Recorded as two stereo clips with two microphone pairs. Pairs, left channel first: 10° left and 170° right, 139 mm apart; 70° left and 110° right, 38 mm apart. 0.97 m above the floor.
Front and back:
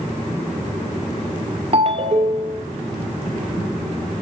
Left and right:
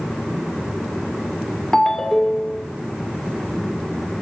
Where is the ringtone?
150° left, 2 m.